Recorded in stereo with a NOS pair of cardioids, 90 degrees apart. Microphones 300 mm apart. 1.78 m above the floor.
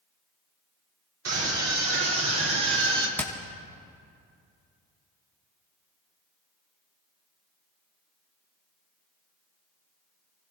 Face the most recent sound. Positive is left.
turn(degrees=5)